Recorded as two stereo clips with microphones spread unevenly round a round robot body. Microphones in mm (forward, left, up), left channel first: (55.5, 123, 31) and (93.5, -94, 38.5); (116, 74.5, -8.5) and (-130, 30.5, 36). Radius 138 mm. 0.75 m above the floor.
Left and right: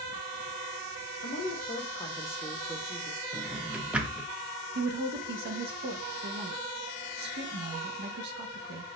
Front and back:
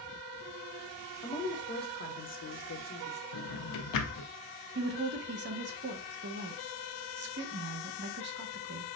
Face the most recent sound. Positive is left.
turn(degrees=-120)